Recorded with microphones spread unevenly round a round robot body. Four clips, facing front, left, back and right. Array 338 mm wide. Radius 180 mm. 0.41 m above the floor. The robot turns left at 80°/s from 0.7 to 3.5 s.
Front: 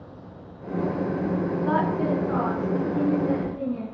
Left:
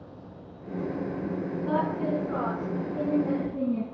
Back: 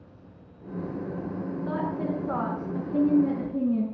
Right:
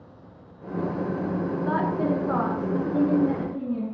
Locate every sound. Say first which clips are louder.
1.6 s a woman speaking: right 2 dB, front 5 dB; 35° right, 5.5 m; by 3.8 s 175° left, 5.5 m